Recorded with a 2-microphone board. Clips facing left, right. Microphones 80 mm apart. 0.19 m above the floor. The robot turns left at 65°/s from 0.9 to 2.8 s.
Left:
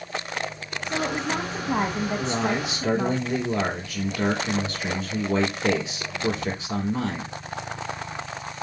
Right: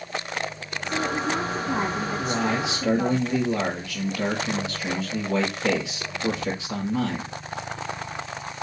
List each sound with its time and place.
0.8 s a woman speaking: 150° left, 1.3 m; by 3.2 s 25° left, 1.3 m
2.2 s a man speaking: 75° left, 5 m; by 7.3 s 35° left, 5 m